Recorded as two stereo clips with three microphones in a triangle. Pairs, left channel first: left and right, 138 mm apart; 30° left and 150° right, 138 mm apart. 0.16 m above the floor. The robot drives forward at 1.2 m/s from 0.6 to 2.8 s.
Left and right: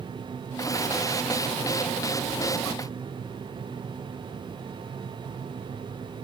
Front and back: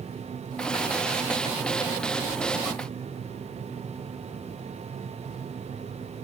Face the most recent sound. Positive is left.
No sound to turn to.